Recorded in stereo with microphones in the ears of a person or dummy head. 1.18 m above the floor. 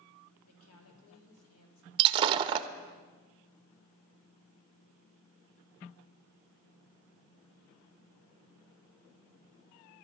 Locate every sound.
0.4 s a woman speaking: 80° left, 3 m
2.0 s breaking glass: 30° right (ahead or behind), 0.5 m